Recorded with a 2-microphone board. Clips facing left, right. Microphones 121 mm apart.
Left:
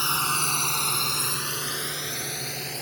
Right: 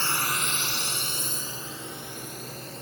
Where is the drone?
15° left (ahead or behind); by 2.8 s 75° left (ahead or behind).